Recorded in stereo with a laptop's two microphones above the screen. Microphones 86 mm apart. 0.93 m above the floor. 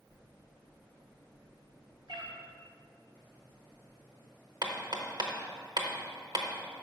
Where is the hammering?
60° right (ahead or behind), 0.9 m.